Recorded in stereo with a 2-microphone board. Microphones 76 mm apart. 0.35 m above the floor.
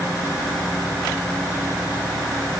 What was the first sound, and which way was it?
Only background noise.